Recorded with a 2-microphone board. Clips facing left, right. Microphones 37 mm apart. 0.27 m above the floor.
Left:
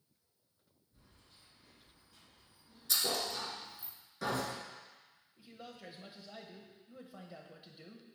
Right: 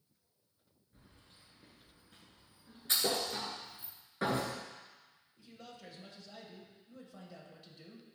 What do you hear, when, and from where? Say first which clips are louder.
0.9 s keys jangling: right 3 dB; 55° right (ahead or behind), 2.5 m; by 3.9 s 70° right (ahead or behind), 2.5 m
2.9 s a thud: right 2 dB; 40° right (ahead or behind), 1.6 m
5.4 s a man speaking: left 1 dB; 20° left (ahead or behind), 0.9 m